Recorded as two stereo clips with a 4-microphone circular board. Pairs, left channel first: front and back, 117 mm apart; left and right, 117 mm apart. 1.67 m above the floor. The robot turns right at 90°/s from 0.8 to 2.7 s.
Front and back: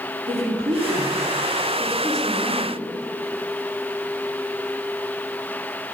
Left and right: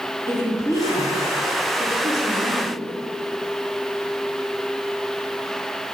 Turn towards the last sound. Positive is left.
turn(degrees=-40)